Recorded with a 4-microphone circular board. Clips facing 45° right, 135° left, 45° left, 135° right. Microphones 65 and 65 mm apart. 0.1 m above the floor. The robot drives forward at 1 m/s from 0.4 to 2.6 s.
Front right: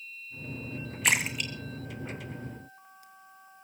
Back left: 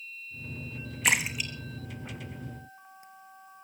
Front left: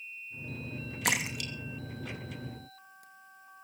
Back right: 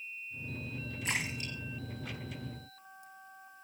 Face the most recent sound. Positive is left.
turn(degrees=70)